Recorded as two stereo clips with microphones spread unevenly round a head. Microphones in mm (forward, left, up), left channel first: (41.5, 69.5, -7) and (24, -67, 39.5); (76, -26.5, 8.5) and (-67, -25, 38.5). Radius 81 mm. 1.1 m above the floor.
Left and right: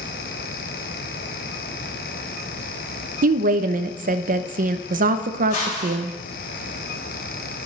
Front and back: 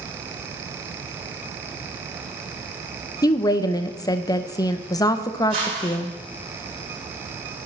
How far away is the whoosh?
About 4.5 m.